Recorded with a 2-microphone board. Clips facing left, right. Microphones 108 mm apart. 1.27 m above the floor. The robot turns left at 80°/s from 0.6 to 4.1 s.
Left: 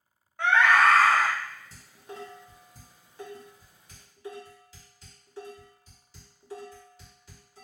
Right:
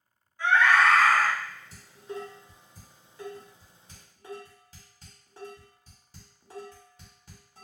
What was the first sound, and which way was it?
A scream, 70° left.